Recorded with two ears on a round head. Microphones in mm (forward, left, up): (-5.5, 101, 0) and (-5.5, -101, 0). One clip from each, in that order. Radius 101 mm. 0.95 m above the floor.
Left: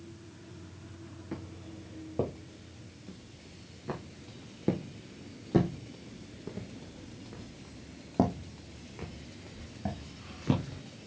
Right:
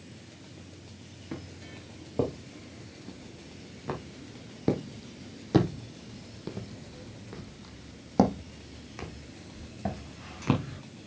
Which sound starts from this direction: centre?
Footsteps, at 1.3 s.